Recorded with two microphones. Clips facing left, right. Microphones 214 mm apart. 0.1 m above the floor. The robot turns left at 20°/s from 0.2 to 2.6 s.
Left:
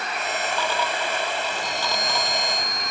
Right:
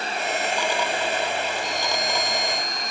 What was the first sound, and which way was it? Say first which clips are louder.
A chime: right 1 dB; 5° left (ahead or behind).